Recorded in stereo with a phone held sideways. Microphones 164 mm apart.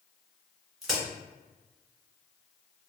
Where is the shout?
I don't hear a shout.